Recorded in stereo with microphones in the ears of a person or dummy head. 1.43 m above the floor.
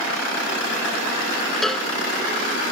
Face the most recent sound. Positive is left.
turn(degrees=5)  # may be behind; listen again after turning